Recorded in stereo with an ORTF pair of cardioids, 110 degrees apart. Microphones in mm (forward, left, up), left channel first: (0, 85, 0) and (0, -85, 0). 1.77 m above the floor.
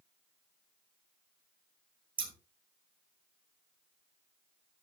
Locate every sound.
2.2 s scissors: 30° right, 2.5 m